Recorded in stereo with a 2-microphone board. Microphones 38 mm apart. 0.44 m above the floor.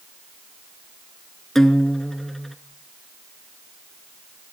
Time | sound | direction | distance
1.6 | a guitar | 10° left (ahead or behind) | 0.9 m